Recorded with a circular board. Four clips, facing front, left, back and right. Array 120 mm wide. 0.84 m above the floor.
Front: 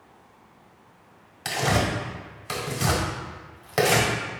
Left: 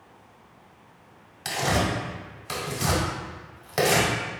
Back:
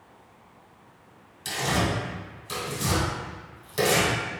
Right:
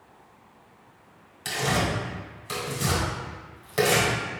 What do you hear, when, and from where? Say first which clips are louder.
1.4 s tearing paper: left 1 dB, front 2 dB; 15° left, 1.3 m